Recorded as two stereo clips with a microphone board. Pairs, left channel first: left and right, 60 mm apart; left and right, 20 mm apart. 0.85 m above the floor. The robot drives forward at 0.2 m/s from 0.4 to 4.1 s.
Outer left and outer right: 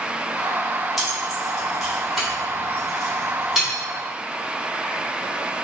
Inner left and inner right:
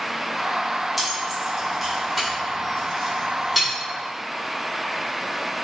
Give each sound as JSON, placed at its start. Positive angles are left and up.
{"t": 1.0, "sound": "keys jangling", "side_deg": 0, "distance_m": 1.1}